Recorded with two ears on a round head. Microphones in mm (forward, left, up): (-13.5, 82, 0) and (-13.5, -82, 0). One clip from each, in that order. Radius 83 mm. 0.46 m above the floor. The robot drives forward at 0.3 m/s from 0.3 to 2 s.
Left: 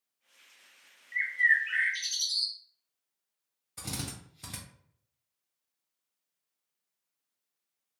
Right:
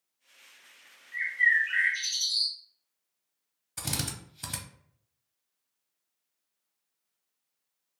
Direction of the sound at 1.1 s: 45° left (ahead or behind).